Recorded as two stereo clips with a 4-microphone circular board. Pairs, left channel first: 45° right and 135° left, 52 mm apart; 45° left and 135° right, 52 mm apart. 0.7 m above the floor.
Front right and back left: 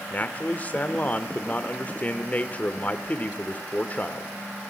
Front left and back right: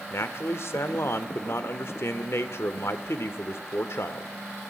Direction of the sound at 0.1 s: 10° left.